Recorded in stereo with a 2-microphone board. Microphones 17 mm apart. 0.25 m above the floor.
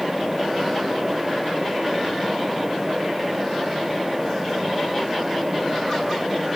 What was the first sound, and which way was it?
Only background noise.